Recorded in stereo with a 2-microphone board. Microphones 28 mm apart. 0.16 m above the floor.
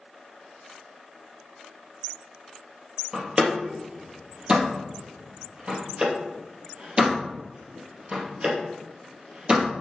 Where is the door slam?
35° right (ahead or behind), 3 m.